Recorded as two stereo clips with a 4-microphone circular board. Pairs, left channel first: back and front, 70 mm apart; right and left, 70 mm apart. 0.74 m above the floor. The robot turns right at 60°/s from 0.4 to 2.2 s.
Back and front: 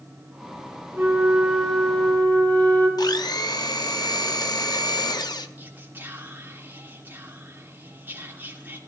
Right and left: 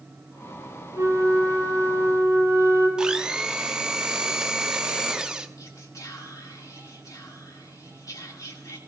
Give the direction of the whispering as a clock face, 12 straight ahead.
2 o'clock.